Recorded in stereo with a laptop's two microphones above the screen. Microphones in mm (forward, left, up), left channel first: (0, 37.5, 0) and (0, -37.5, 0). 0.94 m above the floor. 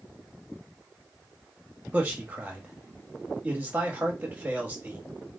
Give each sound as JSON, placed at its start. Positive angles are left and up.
{"t": 1.9, "sound": "a man speaking", "side_deg": -20, "distance_m": 1.3}